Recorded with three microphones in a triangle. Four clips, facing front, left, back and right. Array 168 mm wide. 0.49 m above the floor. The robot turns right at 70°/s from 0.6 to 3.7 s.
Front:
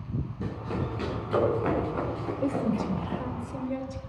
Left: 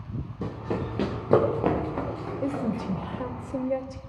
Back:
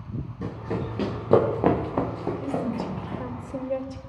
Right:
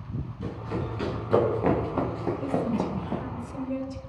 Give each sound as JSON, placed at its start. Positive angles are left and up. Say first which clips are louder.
{"t": 0.4, "sound": "running footsteps", "louder": "left 3 dB, back 4 dB", "azimuth_deg": 95, "distance_m": 5.0}
{"t": 2.4, "sound": "a woman speaking", "louder": "even, front 4 dB", "azimuth_deg": 45, "distance_m": 2.0}